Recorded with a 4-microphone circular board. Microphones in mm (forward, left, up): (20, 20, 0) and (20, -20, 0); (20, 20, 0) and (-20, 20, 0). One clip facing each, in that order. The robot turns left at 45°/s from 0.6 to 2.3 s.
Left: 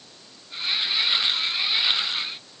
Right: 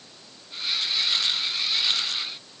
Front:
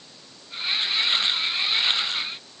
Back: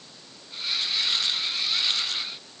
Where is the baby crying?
No baby crying in this recording.